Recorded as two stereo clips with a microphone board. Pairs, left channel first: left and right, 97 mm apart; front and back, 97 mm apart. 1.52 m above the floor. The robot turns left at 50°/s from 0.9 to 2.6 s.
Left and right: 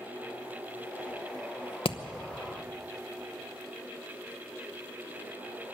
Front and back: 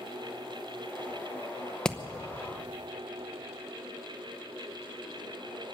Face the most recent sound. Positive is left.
turn(degrees=45)